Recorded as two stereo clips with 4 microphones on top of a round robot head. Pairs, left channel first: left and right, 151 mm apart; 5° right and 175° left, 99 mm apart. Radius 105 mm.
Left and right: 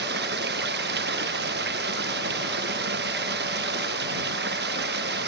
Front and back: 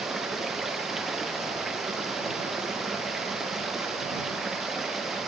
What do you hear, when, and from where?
0.0 s running water: 95° right